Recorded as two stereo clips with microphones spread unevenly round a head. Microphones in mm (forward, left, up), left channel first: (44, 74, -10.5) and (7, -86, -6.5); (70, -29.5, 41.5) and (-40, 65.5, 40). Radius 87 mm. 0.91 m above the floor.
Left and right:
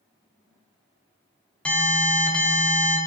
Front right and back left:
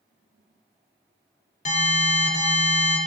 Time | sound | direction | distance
1.6 | an alarm | 5° right | 3.5 m